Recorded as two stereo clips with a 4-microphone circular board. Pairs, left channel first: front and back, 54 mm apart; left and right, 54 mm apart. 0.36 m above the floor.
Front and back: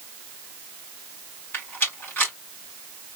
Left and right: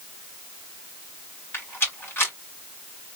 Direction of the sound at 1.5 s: 50° left.